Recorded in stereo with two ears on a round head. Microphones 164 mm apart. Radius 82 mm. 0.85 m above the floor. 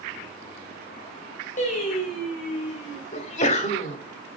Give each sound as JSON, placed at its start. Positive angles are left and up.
{"t": 1.6, "sound": "singing", "side_deg": 45, "distance_m": 5.0}
{"t": 3.1, "sound": "a sneeze", "side_deg": 40, "distance_m": 2.5}